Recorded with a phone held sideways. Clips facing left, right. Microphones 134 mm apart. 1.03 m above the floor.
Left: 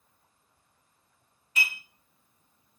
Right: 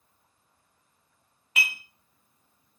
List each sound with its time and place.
1.6 s dishes clattering: 85° right, 0.6 m